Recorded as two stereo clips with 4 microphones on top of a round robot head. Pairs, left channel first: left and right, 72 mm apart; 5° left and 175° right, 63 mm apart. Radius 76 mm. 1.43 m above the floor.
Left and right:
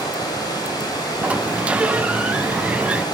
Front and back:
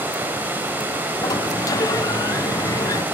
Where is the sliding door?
15° right, 0.9 m.